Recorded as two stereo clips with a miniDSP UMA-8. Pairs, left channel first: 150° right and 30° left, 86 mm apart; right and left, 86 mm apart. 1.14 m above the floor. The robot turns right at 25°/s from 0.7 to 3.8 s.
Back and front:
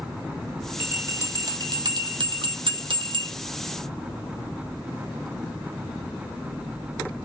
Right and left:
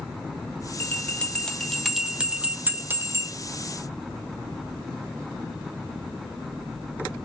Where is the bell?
25° right, 0.5 m; by 3.3 s 40° left, 0.5 m.